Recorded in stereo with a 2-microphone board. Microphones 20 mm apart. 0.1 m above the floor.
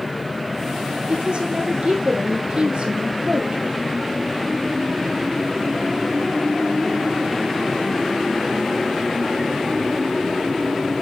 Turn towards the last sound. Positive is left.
turn(degrees=-60)  # may be behind; listen again after turning